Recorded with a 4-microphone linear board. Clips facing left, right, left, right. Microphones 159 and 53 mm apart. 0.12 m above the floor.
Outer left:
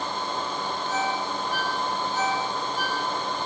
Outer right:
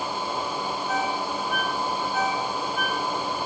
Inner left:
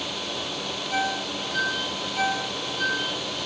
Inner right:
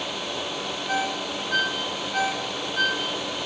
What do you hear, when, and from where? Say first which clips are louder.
0.9 s a ringtone: even, even; 70° right (ahead or behind), 10 m